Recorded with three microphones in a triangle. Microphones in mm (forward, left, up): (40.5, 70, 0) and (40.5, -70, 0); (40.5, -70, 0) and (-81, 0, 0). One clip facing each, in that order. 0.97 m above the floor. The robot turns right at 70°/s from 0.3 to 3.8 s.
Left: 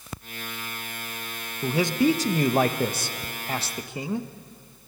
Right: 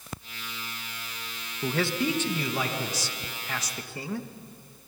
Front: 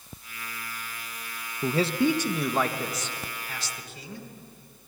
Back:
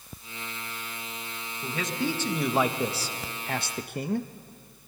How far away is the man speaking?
About 1.0 m.